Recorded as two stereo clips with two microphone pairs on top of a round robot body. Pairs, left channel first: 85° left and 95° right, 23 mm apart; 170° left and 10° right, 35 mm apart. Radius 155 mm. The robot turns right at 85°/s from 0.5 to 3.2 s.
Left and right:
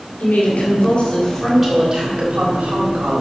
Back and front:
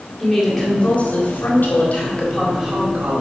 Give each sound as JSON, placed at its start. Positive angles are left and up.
{"t": 0.2, "sound": "a woman speaking", "azimuth_deg": 95, "distance_m": 3.5}